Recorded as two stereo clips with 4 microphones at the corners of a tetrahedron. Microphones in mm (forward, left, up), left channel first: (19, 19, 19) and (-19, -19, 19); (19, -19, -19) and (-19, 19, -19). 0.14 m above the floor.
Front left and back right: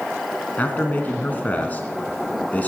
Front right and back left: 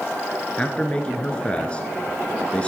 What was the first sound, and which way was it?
A man speaking, 10° left.